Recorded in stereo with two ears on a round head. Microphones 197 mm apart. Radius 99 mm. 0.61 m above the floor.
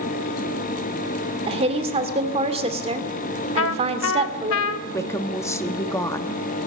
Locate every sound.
1.5 s a woman speaking: 25° right (ahead or behind), 1.9 m
3.6 s a trumpet: 60° left (ahead or behind), 0.7 m
4.9 s a woman speaking: 10° left (ahead or behind), 1.0 m